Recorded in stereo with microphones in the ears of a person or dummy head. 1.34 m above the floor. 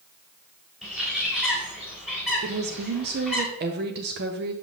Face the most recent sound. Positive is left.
turn(degrees=-55)  # may be behind; listen again after turning